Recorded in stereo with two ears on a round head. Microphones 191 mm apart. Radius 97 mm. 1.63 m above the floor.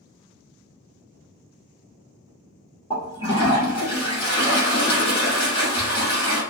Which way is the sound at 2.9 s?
25° left (ahead or behind).